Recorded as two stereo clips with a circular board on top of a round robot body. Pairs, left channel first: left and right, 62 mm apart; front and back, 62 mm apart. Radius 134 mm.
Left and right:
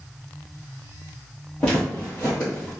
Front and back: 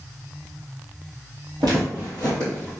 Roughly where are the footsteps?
Behind.